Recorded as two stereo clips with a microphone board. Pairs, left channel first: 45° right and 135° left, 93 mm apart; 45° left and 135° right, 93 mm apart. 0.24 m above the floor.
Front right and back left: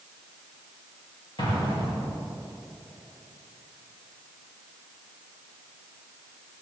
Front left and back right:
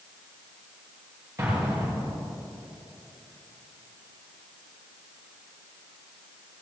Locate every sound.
1.4 s an explosion: 75° right, 5.5 m